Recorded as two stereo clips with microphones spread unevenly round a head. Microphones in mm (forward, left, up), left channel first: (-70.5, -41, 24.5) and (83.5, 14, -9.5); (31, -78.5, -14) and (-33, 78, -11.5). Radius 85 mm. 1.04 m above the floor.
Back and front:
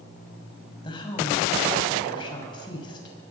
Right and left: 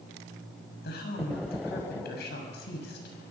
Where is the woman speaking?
100° right, 6 m.